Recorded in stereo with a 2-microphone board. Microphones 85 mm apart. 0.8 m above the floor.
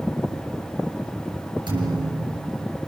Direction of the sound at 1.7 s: 65° right (ahead or behind).